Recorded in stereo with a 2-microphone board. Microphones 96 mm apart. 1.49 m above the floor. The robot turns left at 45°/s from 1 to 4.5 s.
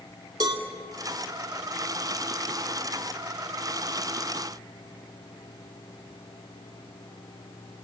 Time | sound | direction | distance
0.4 | a cowbell | 45° right (ahead or behind) | 2.5 m